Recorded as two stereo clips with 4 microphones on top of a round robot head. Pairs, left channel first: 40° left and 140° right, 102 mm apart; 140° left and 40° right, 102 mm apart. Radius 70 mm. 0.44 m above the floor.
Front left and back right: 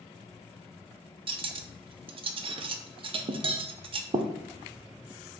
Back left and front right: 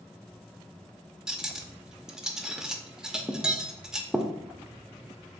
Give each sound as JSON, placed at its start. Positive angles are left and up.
{"t": 1.3, "sound": "cutlery clinking", "azimuth_deg": -125, "distance_m": 0.5}